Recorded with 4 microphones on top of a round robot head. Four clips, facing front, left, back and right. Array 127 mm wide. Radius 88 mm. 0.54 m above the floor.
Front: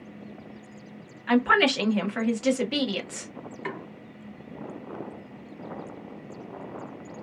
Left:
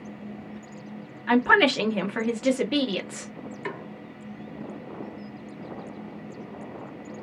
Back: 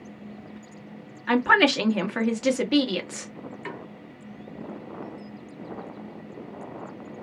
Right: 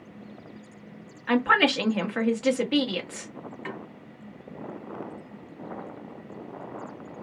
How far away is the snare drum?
About 1.3 m.